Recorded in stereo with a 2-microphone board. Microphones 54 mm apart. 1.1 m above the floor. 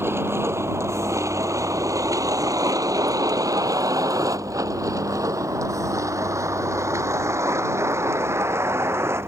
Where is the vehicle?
45° right (ahead or behind).